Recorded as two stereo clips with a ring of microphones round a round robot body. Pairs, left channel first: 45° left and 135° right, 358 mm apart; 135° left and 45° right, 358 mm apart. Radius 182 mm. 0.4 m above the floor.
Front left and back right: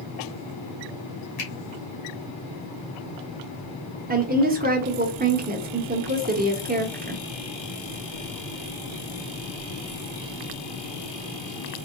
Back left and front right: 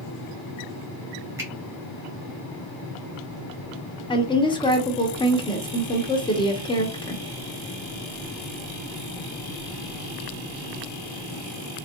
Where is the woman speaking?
165° right, 0.8 m.